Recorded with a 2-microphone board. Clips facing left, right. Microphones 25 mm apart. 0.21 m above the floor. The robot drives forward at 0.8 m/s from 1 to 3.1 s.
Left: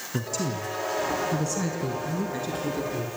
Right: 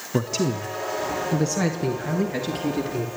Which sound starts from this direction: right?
A man speaking, at 0.1 s.